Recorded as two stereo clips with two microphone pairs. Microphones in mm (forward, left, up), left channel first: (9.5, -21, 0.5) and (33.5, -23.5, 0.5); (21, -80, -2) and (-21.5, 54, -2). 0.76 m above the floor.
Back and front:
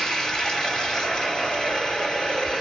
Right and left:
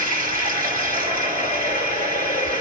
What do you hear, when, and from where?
0.0 s running water: 120° left, 1.8 m